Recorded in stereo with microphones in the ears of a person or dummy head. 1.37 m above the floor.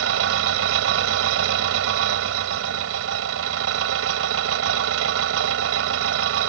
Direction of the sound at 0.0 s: 80° right.